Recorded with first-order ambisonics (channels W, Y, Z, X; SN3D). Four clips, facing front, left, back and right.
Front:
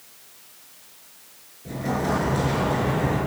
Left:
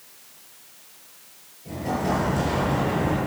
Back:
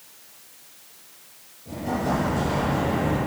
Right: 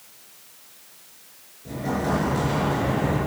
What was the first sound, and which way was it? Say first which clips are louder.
An explosion: even, front 1 dB; 25° right.